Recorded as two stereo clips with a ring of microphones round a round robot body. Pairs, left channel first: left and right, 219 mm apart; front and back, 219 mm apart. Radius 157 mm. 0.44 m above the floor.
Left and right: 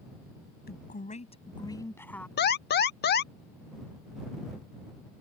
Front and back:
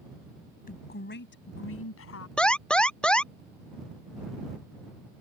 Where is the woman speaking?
45° left; by 2.3 s 5° left.